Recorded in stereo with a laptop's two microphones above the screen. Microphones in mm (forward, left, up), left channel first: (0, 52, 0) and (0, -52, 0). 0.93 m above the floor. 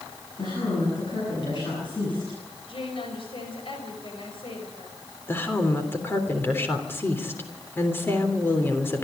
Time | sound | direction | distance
0.4 | a woman speaking | 50° left (ahead or behind) | 10 m
2.7 | a woman speaking | 60° left (ahead or behind) | 5.5 m
5.3 | a woman speaking | 20° left (ahead or behind) | 3.5 m